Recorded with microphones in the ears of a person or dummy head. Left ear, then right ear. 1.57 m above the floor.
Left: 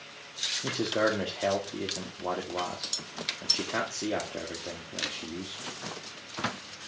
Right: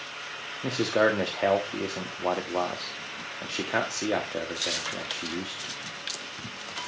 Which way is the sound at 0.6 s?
25° right (ahead or behind).